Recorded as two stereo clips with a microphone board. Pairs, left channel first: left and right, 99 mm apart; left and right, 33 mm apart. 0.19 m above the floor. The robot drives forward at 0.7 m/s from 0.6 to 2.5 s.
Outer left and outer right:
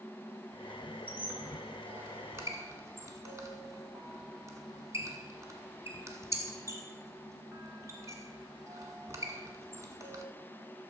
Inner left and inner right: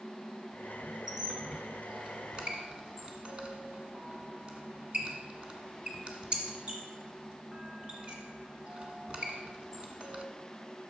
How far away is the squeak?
About 2 m.